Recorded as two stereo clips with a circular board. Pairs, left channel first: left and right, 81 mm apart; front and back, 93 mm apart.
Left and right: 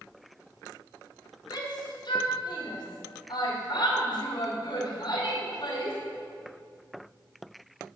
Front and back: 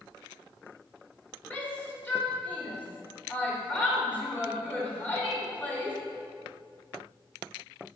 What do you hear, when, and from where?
1.5 s a shout: 70° left, 2.5 m